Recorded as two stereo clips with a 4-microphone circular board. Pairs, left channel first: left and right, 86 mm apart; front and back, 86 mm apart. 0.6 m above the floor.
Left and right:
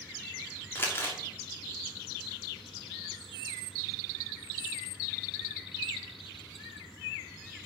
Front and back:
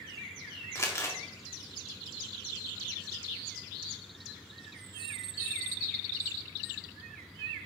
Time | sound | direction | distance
0.8 | crumpling | 40° left | 1.7 m